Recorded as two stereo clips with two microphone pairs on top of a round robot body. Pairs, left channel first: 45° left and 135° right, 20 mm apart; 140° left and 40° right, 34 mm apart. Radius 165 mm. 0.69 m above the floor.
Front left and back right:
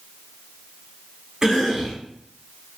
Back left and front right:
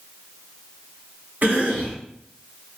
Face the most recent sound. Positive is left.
turn(degrees=-80)